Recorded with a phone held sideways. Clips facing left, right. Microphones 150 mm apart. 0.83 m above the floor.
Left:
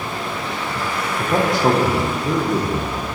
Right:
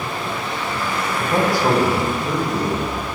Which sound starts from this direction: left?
A man speaking, at 1.2 s.